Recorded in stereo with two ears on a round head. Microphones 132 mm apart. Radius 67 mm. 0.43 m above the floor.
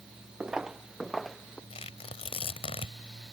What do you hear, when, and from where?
0.4 s footsteps: 5° right (ahead or behind); by 1.6 s 5° left (ahead or behind)
1.7 s tearing paper: 40° left (ahead or behind)